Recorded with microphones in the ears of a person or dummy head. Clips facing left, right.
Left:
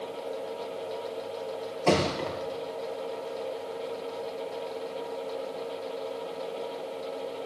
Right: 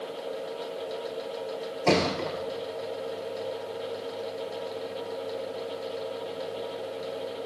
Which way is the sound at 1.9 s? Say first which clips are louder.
Right 1 dB; centre (ahead or behind).